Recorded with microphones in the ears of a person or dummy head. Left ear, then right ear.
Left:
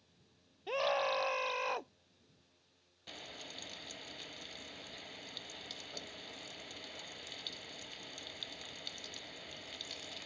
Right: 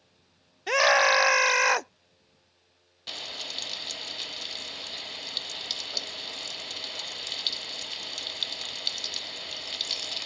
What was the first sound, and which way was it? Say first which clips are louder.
A scream: right 13 dB; 60° right (ahead or behind).